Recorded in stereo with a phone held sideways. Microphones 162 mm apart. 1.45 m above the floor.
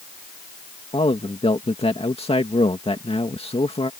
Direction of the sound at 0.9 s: 35° left (ahead or behind).